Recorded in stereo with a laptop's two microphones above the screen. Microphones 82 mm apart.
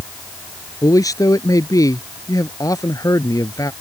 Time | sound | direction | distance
0.8 | a man speaking | 45° left (ahead or behind) | ?